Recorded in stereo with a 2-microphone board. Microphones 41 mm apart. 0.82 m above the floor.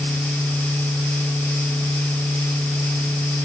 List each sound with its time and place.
Only background noise.